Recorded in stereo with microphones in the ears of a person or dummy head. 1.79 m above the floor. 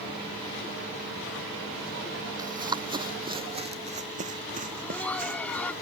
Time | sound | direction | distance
2.4 | running footsteps | 15° right (ahead or behind) | ?
4.6 | laughter | 10° left (ahead or behind) | ?